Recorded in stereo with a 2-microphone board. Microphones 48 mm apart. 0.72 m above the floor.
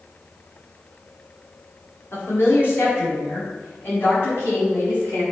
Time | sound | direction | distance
2.1 | a woman speaking | 50° left (ahead or behind) | 3 m